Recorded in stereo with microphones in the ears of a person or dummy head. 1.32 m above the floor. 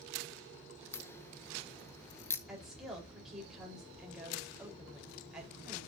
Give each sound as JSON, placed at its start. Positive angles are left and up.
{"t": 0.9, "sound": "a crack", "side_deg": 15, "distance_m": 0.9}
{"t": 2.5, "sound": "a woman speaking", "side_deg": -5, "distance_m": 4.0}